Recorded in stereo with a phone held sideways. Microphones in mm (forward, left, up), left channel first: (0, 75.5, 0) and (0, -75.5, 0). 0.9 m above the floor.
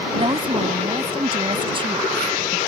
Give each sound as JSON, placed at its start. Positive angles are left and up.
{"t": 0.1, "sound": "a woman speaking", "side_deg": -35}